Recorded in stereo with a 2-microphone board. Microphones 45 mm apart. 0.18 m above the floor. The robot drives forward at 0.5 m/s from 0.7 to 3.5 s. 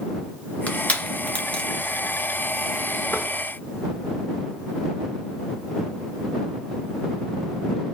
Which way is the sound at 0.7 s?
35° left (ahead or behind).